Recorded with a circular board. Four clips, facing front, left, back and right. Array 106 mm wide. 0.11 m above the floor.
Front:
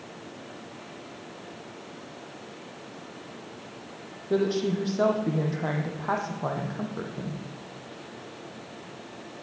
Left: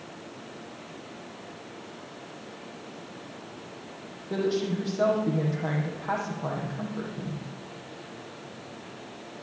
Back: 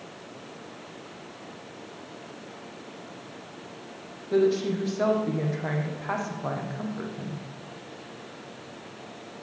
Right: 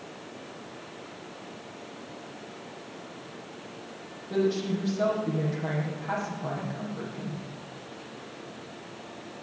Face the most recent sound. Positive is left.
turn(degrees=15)